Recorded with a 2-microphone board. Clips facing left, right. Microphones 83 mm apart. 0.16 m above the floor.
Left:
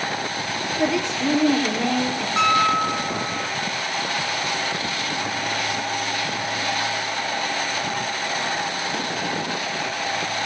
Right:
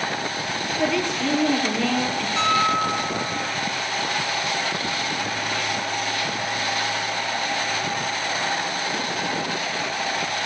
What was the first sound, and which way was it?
A woman speaking, 20° left (ahead or behind).